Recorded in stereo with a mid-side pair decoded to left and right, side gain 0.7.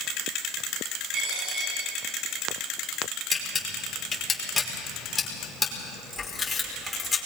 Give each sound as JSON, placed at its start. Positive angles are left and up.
{"t": 1.1, "sound": "a dropped coin", "azimuth_deg": -50, "distance_m": 7.0}
{"t": 3.3, "sound": "a camera shutter", "azimuth_deg": 15, "distance_m": 5.5}